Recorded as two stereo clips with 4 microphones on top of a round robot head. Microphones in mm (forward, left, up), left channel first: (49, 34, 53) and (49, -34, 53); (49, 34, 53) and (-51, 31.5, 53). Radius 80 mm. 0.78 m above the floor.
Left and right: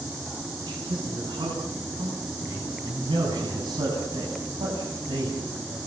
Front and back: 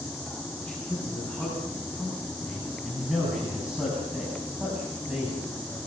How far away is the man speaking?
About 9 m.